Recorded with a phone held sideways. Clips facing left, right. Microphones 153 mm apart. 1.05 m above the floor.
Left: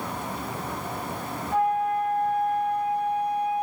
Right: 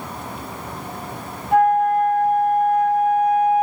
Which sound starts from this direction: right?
A flute, at 1.5 s.